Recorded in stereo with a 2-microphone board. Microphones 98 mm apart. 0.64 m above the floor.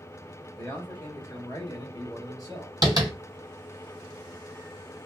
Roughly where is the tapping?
Right.